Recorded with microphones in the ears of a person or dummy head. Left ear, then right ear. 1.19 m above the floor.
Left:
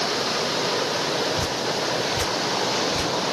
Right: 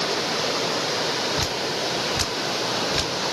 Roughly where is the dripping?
Right.